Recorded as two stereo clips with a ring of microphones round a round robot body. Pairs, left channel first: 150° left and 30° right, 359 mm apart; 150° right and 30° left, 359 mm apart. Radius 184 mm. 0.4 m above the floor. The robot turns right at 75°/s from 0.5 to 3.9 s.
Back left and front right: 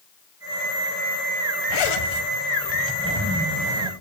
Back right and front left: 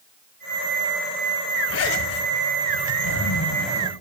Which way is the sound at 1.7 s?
150° left.